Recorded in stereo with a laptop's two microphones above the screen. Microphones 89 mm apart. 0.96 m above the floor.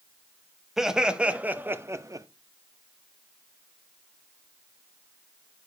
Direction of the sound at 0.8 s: 5° right (ahead or behind).